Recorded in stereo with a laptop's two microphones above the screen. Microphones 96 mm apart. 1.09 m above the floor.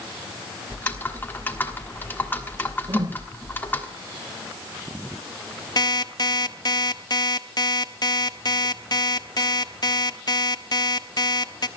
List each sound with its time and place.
0.7 s typing on a keyboard: 20° left (ahead or behind), 1.4 m
2.9 s a whoosh: 45° right (ahead or behind), 1.1 m
5.8 s an alarm clock: 45° left (ahead or behind), 1.0 m